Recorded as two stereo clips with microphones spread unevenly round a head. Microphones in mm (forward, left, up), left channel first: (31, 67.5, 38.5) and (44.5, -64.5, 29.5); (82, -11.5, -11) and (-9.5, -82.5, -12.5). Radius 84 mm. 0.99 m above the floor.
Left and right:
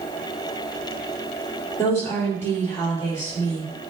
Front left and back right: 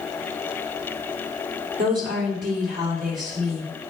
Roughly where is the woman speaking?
Behind.